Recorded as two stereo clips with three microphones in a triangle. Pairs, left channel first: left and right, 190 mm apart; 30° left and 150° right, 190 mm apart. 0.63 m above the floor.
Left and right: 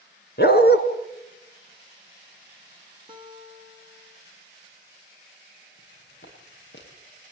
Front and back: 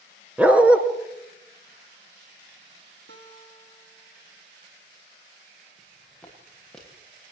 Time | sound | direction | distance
0.4 | a dog barking | 125° left | 3 m
3.1 | a guitar | 155° right | 3.5 m
5.8 | footsteps | 110° left | 9 m